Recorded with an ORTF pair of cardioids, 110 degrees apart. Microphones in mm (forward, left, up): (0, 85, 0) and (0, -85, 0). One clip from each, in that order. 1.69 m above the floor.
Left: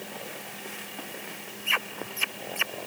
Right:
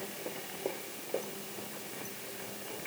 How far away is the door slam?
I don't hear a door slam.